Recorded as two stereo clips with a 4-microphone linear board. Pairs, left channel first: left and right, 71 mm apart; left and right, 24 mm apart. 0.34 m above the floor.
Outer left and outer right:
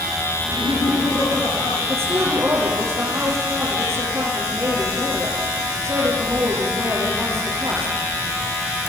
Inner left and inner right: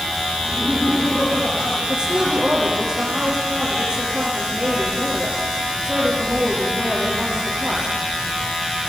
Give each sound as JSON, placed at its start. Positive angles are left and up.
{"t": 0.4, "sound": "laughter", "side_deg": 80, "distance_m": 8.0}
{"t": 1.9, "sound": "a woman speaking", "side_deg": -40, "distance_m": 8.0}